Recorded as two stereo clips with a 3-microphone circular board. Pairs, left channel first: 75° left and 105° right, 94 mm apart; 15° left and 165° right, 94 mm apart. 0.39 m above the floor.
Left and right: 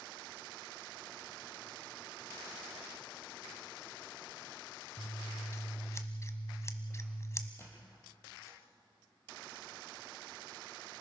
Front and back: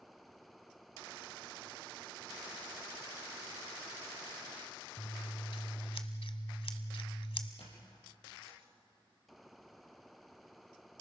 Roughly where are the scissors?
Ahead.